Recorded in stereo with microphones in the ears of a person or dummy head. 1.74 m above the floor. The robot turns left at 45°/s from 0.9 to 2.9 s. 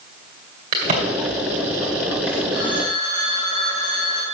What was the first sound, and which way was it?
A crack, 35° right (ahead or behind).